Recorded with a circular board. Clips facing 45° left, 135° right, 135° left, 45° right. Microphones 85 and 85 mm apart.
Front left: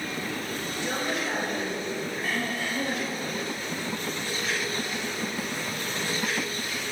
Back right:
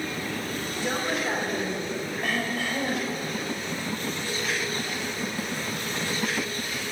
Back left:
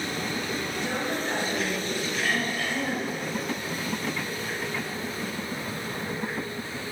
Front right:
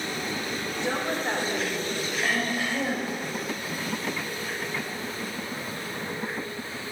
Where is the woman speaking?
95° right, 3 m.